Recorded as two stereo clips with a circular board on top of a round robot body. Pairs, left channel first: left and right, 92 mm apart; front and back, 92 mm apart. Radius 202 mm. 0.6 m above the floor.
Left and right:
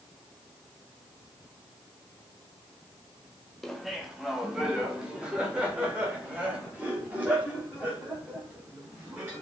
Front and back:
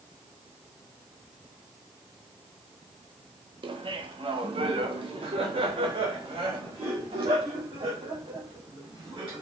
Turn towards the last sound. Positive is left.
turn(degrees=-160)